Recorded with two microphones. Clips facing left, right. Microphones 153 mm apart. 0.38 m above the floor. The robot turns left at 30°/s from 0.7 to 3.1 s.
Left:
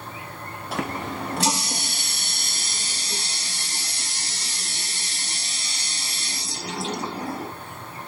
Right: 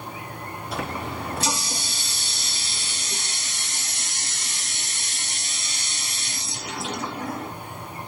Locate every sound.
0.7 s a running tap: 105° left, 1.5 m; by 7.5 s 35° left, 1.5 m